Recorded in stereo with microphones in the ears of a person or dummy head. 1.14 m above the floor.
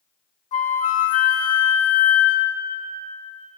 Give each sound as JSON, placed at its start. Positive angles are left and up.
{"t": 0.5, "sound": "a flute", "side_deg": 40, "distance_m": 0.8}